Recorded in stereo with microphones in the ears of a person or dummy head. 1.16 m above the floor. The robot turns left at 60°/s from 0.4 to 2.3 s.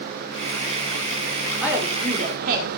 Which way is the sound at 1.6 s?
Straight ahead.